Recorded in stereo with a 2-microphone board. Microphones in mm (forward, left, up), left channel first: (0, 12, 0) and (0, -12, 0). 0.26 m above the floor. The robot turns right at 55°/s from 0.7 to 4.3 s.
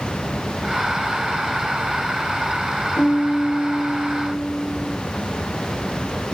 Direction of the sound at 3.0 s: 100° left.